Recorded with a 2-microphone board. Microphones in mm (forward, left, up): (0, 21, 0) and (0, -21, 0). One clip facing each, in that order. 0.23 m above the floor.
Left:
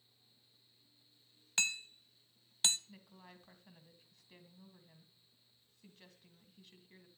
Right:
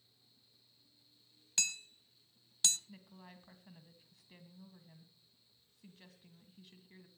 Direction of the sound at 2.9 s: 5° right (ahead or behind).